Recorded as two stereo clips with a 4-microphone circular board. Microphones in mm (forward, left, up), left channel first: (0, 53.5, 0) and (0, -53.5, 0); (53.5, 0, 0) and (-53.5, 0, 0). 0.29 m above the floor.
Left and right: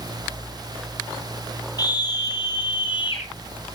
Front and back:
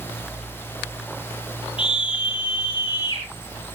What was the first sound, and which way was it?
A scream, 40° left.